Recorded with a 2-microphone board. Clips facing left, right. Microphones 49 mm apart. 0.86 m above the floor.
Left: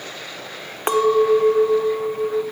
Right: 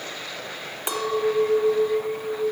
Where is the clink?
45° left (ahead or behind), 1.0 m.